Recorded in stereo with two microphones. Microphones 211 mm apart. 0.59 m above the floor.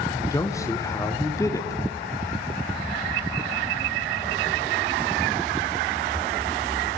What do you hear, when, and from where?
0.1 s a man speaking: 15° left (ahead or behind), 0.9 m